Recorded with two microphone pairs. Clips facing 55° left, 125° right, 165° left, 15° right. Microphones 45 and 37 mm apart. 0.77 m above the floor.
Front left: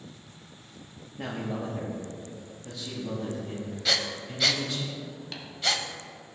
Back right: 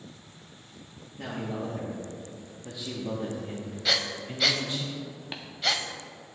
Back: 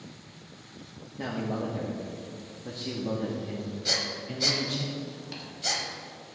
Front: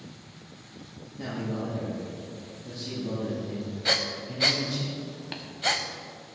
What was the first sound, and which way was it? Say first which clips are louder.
A man speaking: front left 1 dB, back 1 dB; 120° left.